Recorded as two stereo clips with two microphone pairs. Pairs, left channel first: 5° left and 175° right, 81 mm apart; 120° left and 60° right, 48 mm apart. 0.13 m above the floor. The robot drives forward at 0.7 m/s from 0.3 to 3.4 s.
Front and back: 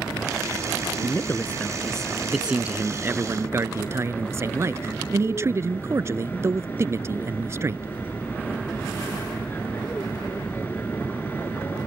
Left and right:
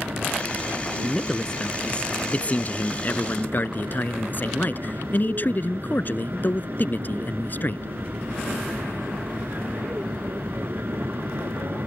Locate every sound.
0.0 s an aircraft: 50° right; by 11.9 s 55° right
1.0 s a man speaking: 40° left; by 7.8 s 145° left